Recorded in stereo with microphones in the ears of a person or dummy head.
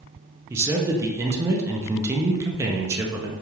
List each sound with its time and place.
0.5 s a man speaking: 15° right (ahead or behind), 0.5 m